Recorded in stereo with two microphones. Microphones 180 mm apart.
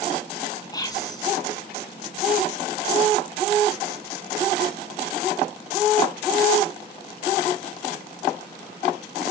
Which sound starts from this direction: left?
Whispering, at 0.7 s.